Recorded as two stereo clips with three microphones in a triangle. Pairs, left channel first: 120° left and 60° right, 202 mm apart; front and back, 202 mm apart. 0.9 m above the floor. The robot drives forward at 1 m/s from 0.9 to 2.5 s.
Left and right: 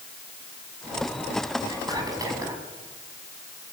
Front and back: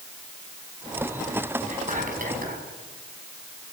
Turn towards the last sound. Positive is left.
turn(degrees=-135)